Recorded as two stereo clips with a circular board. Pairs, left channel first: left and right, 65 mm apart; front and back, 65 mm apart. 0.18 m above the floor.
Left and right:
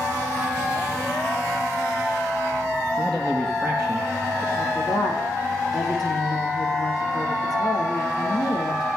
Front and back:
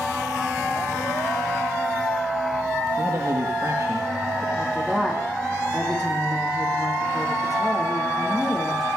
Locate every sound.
3.0 s a man speaking: 175° left, 3.5 m
4.5 s a woman speaking: 95° left, 6.5 m